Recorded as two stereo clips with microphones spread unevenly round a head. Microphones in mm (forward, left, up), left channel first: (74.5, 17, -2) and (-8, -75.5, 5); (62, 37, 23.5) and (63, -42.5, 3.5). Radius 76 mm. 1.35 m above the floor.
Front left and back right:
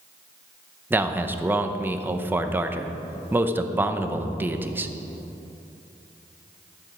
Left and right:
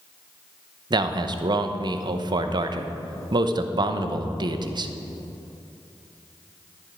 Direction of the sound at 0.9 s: 60° right.